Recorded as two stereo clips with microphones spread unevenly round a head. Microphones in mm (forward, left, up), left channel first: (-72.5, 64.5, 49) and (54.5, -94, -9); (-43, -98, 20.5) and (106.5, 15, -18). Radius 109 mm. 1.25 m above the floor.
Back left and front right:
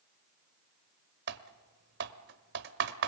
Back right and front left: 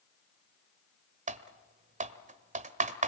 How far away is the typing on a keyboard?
About 1.3 m.